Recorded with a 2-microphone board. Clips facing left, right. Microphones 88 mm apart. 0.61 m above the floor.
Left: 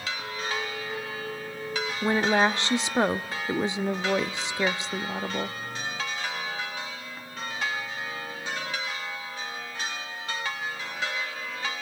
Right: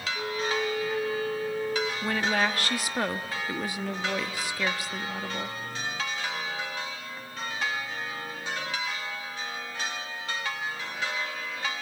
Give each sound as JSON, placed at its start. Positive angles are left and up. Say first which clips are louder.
{"t": 0.1, "sound": "a flute", "louder": "right 7 dB", "side_deg": -50, "distance_m": 2.5}
{"t": 2.0, "sound": "a woman speaking", "louder": "left 7 dB", "side_deg": 20, "distance_m": 0.5}